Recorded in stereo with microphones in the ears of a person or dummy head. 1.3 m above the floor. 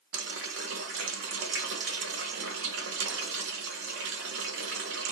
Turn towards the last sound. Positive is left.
turn(degrees=-75)  # may be behind; listen again after turning